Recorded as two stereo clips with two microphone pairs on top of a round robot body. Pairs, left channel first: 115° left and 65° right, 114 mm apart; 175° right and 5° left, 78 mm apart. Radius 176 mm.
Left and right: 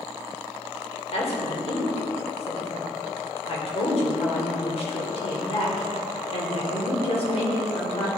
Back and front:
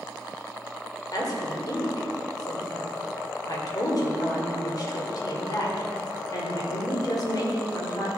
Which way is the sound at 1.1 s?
150° left.